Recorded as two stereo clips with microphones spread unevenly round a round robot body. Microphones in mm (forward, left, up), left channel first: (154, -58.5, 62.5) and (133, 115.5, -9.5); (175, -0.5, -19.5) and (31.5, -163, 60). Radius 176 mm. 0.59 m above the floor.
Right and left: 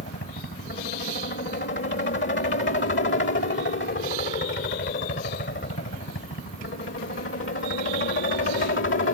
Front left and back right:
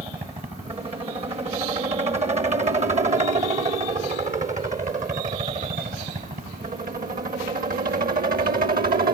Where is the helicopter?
60° right; by 9.1 s 80° right.